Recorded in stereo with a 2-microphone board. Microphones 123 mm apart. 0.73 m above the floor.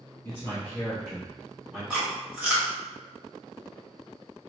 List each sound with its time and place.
0.2 s a man speaking: 20° left (ahead or behind), 0.8 m; by 1.8 s 10° right (ahead or behind), 1.2 m
1.9 s chewing: 10° right (ahead or behind), 1.2 m